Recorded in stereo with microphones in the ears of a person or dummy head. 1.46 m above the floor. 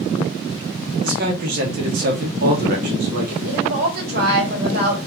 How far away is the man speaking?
About 1.1 m.